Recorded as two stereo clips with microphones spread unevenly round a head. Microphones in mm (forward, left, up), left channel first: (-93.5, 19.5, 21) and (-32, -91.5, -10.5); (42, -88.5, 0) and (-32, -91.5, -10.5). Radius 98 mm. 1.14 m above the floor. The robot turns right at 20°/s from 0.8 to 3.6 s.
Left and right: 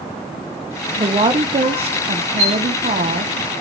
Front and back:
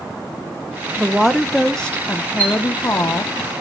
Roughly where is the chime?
Behind left.